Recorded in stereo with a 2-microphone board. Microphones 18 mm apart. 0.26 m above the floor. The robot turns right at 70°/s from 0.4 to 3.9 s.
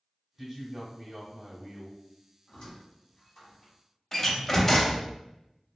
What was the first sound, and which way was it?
A man speaking, 15° right (ahead or behind).